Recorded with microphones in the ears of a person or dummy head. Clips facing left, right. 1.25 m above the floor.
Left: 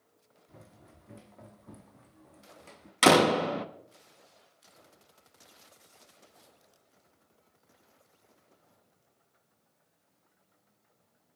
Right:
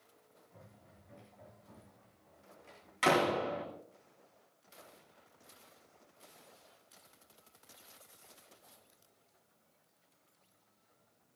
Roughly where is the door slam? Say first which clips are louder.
Left 8 dB; left.